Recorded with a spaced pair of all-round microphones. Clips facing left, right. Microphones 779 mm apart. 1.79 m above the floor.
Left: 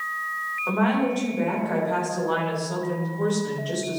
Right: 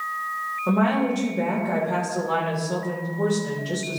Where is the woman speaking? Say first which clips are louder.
Right 1 dB; 55° right (ahead or behind), 2.5 m.